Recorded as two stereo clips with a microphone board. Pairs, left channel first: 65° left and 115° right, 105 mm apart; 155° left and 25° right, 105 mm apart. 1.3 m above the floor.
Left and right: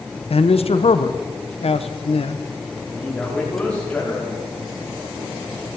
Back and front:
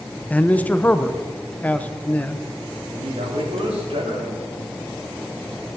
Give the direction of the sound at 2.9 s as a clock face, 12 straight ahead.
12 o'clock.